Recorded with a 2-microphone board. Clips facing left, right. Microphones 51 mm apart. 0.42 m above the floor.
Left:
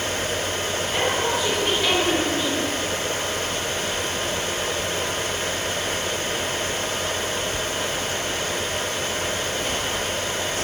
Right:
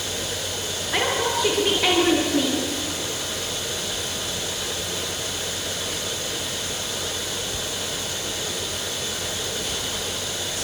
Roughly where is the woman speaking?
Right.